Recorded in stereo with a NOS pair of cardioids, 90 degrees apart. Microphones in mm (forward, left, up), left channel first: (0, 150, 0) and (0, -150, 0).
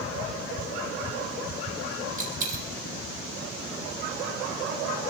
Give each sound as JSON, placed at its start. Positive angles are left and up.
{"t": 2.2, "sound": "a dropped coin", "azimuth_deg": -30, "distance_m": 5.5}